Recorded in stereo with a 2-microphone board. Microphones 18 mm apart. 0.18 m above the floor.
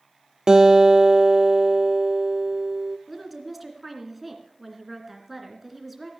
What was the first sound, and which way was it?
A guitar, 40° right (ahead or behind).